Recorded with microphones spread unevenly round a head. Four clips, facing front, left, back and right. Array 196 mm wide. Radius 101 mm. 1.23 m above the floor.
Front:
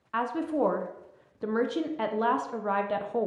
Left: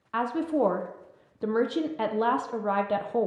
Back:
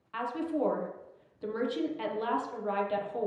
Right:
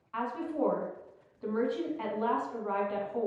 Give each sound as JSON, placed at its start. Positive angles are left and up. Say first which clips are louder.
{"t": 0.1, "sound": "a woman speaking", "louder": "left 7 dB, front 4 dB", "azimuth_deg": 70, "distance_m": 0.7}